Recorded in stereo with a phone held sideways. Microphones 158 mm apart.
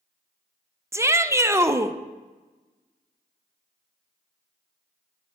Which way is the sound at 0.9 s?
15° right (ahead or behind).